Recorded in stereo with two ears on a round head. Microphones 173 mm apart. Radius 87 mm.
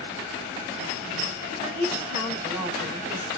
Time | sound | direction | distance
1.6 | a woman speaking | 35° right (ahead or behind) | 2 m